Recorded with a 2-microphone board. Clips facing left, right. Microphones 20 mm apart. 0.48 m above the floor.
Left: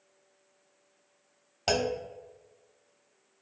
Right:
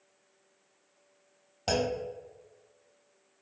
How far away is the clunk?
About 0.6 m.